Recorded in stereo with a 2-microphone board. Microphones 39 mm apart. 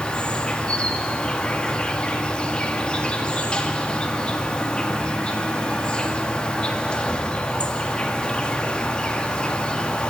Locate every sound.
0.0 s an insect: 25° left (ahead or behind), 1.8 m